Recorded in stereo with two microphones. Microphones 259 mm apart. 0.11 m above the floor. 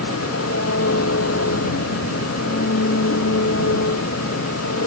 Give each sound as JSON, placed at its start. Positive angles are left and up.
{"t": 0.0, "sound": "an engine running", "side_deg": 65}